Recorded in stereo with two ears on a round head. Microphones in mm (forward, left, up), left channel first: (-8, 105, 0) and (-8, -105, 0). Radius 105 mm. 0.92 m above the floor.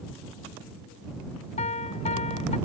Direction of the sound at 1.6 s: 30° left (ahead or behind).